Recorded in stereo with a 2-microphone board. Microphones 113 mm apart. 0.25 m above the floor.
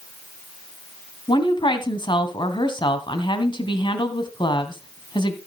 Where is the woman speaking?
45° left (ahead or behind), 2 m.